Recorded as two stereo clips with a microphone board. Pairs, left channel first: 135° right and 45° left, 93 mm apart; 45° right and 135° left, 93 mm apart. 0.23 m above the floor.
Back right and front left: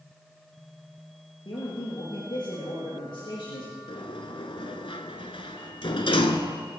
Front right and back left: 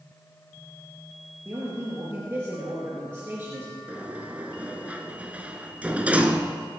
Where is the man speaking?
155° right, 4 m.